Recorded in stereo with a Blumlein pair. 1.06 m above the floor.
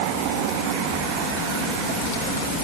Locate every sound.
Only background noise.